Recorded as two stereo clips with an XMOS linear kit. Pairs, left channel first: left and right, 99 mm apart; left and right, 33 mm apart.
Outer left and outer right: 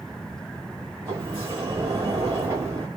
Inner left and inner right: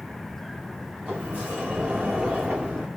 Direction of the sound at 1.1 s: 30° right (ahead or behind).